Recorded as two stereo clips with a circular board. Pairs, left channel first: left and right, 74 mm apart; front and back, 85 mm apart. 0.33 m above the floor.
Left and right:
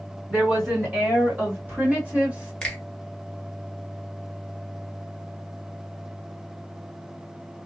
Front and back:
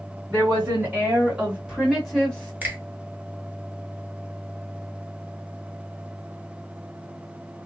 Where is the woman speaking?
140° right, 2.0 m; by 2.5 s 50° right, 1.5 m.